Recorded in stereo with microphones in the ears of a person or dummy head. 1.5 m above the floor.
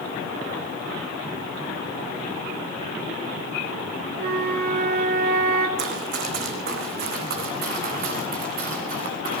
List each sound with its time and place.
4.2 s a flute: 55° right (ahead or behind), 3.5 m
5.8 s running footsteps: 65° right (ahead or behind), 5 m; by 9.4 s 50° right (ahead or behind), 8 m